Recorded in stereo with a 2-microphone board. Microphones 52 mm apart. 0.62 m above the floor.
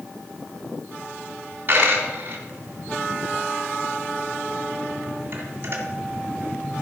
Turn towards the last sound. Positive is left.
turn(degrees=-40)  # may be behind; listen again after turning